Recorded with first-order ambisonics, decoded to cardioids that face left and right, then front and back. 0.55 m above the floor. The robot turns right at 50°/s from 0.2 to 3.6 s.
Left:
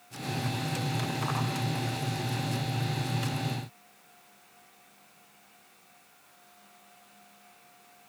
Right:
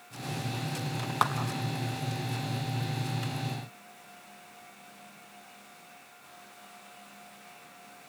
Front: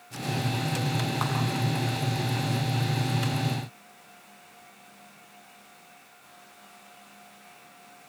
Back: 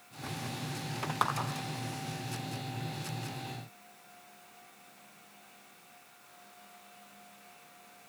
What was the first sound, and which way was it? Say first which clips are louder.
A clap: right 10 dB, back 4 dB; 100° right.